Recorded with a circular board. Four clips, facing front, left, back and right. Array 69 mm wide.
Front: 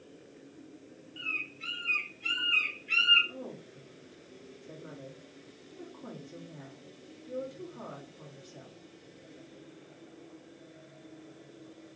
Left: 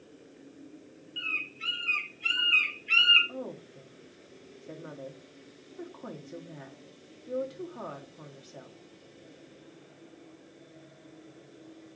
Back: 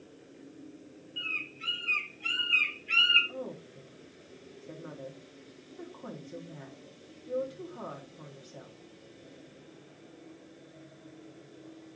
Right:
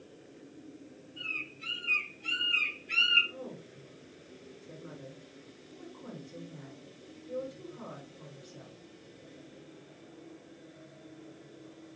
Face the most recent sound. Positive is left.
turn(degrees=105)